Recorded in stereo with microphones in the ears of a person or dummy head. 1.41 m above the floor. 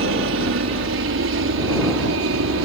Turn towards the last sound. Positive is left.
turn(degrees=-65)  # may be behind; listen again after turning